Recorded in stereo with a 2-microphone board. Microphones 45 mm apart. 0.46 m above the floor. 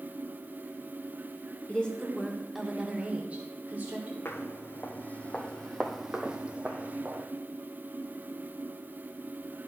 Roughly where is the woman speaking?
Left.